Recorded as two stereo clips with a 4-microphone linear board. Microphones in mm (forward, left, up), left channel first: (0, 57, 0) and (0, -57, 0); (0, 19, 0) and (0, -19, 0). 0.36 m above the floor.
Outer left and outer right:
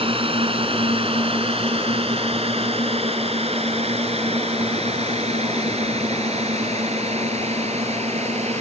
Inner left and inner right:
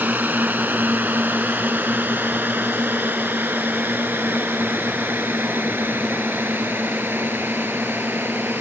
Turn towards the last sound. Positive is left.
turn(degrees=-70)  # may be behind; listen again after turning